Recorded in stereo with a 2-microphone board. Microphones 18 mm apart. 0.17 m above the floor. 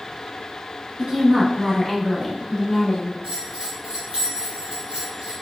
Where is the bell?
55° right (ahead or behind), 1.7 m.